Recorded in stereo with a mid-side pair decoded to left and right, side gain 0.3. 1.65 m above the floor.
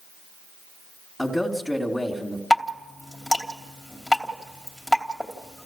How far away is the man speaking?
About 3 m.